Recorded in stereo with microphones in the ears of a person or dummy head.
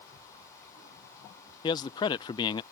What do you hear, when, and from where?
1.6 s a man speaking: 25° left (ahead or behind)